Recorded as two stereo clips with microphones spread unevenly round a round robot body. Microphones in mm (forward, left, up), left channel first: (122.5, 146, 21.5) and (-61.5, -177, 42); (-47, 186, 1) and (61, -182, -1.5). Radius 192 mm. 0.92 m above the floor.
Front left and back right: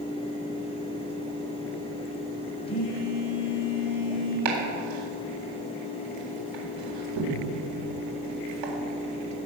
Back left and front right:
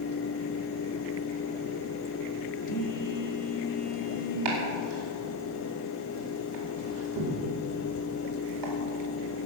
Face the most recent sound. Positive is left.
turn(degrees=-115)